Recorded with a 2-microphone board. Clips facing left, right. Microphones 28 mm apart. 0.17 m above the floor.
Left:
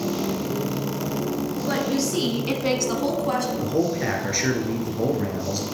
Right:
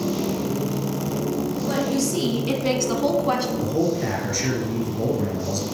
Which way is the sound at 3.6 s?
25° left (ahead or behind).